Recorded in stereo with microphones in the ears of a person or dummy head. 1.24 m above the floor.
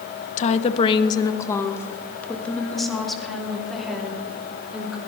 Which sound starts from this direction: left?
A woman speaking, at 0.4 s.